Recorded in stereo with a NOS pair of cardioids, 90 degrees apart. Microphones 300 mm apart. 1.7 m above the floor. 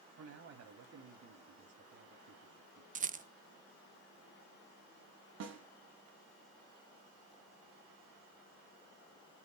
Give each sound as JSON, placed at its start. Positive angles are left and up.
{"t": 0.2, "sound": "a man speaking", "azimuth_deg": -50, "distance_m": 3.0}
{"t": 3.0, "sound": "a rattle", "azimuth_deg": -25, "distance_m": 0.6}
{"t": 5.4, "sound": "a snare drum", "azimuth_deg": -55, "distance_m": 3.5}